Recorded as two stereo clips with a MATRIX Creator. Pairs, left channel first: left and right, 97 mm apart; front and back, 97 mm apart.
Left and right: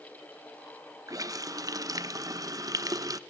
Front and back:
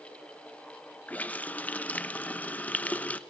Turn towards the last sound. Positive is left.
turn(degrees=-65)